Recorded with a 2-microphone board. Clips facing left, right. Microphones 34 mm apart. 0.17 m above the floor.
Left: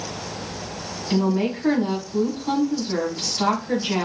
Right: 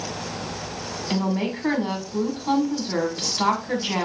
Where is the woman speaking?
15° right (ahead or behind), 1.4 m.